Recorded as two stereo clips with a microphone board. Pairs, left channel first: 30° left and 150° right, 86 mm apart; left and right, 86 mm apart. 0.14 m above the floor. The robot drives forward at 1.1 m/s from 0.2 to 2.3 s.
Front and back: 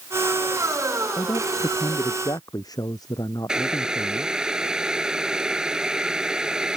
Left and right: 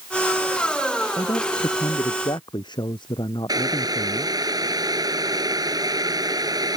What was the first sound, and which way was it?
A man speaking, 60° left.